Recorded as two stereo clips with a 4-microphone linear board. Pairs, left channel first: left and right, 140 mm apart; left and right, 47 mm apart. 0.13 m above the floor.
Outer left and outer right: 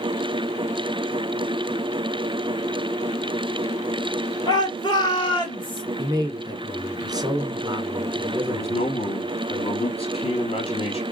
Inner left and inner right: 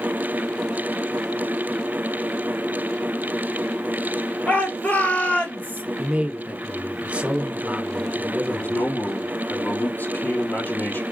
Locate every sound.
4.5 s a shout: 35° left (ahead or behind), 3 m
6.0 s a man speaking: 30° right (ahead or behind), 1.3 m
8.5 s a man speaking: 50° left (ahead or behind), 3.5 m